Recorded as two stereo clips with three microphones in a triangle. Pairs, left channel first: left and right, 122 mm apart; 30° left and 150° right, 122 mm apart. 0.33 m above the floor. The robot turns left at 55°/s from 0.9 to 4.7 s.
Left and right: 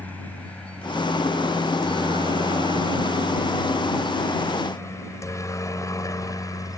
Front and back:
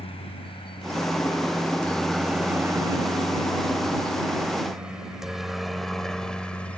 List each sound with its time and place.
0.0 s a helicopter: 15° left; by 6.8 s 100° left